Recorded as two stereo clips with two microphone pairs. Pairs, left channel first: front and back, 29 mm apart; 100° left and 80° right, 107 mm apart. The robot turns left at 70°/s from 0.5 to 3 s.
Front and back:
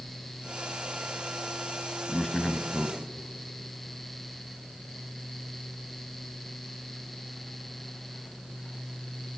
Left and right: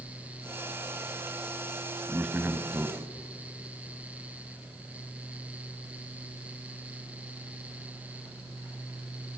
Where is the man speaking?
40° right, 1.0 m; by 3.0 s 105° right, 1.0 m.